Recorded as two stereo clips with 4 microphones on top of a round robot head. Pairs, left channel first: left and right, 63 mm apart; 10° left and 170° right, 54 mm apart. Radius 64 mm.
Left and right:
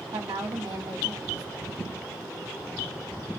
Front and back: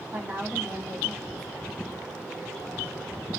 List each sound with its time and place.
0.1 s a woman speaking: 115° right, 0.9 m